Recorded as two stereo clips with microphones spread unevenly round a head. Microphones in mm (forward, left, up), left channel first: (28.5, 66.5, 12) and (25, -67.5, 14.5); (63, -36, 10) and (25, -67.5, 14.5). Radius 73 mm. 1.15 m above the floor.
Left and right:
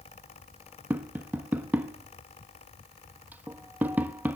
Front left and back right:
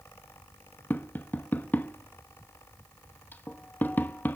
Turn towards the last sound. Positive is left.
turn(degrees=-15)